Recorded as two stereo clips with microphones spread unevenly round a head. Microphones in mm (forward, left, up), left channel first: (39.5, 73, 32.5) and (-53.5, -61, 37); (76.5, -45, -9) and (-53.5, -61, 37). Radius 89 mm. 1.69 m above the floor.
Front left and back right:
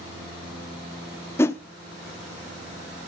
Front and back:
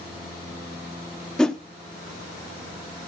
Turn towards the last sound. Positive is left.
turn(degrees=120)